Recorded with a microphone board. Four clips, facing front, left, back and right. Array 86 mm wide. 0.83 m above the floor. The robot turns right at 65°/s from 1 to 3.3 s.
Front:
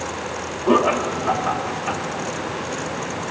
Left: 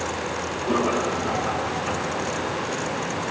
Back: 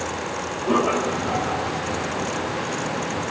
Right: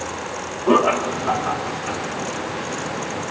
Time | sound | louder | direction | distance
0.7 | laughter | right 6 dB, front 3 dB | 60° right | 2 m